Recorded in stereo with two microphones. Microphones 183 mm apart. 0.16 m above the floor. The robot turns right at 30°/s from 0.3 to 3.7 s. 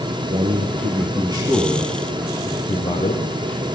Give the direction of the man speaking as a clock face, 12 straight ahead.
2 o'clock.